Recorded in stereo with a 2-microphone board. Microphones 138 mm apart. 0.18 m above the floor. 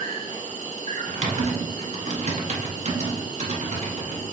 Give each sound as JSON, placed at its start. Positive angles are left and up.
{"t": 0.0, "sound": "an insect", "side_deg": -70, "distance_m": 0.9}
{"t": 1.1, "sound": "typing on a keyboard", "side_deg": -60, "distance_m": 0.9}